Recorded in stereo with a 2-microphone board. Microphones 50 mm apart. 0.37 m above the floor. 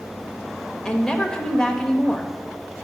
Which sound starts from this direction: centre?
A woman speaking, at 0.8 s.